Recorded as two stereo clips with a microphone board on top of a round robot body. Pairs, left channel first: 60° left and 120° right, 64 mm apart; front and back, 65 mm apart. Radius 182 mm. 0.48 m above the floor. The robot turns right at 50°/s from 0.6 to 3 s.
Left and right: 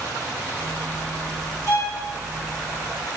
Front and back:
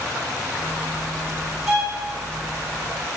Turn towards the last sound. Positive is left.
turn(degrees=170)